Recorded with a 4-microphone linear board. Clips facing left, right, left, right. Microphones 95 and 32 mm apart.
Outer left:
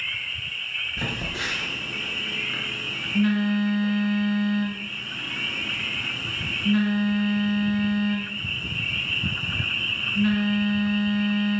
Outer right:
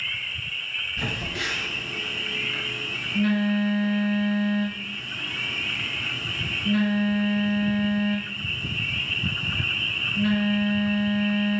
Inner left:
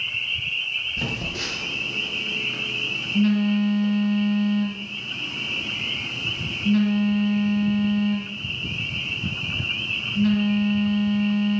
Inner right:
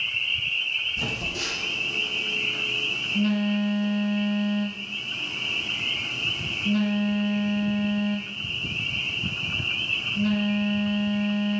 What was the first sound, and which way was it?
A phone buzzing, 25° left (ahead or behind).